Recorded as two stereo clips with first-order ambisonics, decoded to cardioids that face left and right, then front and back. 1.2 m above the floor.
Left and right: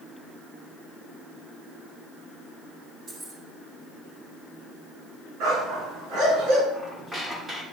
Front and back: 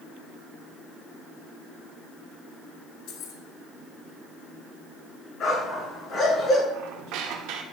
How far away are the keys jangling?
About 2 m.